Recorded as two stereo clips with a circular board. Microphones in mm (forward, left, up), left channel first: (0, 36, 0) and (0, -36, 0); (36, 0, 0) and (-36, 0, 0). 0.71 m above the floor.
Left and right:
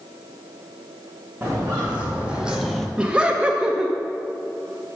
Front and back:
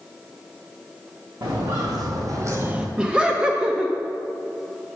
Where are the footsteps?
160° right, 2.5 m; by 2.9 s 140° left, 0.7 m.